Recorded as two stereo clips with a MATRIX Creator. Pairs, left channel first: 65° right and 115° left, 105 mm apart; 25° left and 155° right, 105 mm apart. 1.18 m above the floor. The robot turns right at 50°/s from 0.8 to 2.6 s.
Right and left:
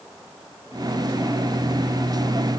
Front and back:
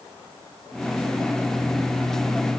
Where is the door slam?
No door slam in this recording.